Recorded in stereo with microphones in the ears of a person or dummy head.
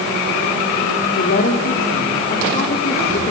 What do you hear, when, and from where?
1.1 s a woman speaking: 55° left (ahead or behind), 4 m; by 3.3 s 30° left (ahead or behind), 4 m